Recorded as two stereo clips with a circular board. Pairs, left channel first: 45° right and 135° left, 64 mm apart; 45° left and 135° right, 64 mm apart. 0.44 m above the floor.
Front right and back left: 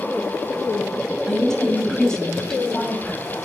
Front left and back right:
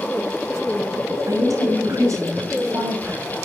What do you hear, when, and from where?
1.3 s a woman speaking: 125° right, 3 m